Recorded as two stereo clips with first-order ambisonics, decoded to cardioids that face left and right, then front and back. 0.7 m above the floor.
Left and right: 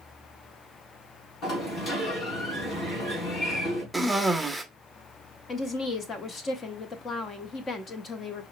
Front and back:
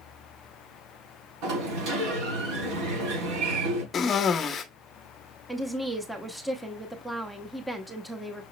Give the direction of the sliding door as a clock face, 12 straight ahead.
7 o'clock.